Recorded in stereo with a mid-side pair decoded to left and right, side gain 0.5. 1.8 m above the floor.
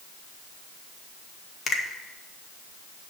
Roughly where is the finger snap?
Ahead left.